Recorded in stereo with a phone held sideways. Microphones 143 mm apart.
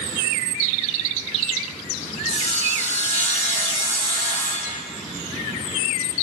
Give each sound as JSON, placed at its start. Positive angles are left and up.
{"t": 2.3, "sound": "sawing", "side_deg": 55, "distance_m": 4.5}